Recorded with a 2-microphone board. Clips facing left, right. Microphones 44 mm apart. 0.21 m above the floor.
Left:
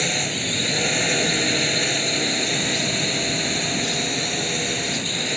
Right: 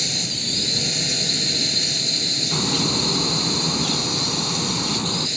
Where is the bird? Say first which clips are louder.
Even; 55° right (ahead or behind).